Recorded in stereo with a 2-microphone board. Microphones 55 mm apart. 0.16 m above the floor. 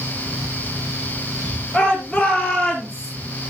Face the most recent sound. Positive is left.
turn(degrees=10)  # may be behind; listen again after turning